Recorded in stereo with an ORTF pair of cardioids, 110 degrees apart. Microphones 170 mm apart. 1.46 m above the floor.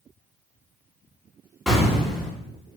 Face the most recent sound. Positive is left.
turn(degrees=0)